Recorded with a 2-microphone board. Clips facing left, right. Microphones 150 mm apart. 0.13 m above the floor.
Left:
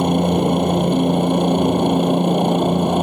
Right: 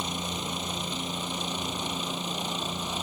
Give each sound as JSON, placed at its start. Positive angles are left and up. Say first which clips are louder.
{"t": 0.0, "sound": "a helicopter", "louder": "left 18 dB", "side_deg": 65}